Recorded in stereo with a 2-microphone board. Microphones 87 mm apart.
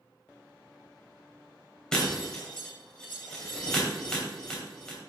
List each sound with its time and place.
1.9 s breaking glass: 10° left (ahead or behind), 2.5 m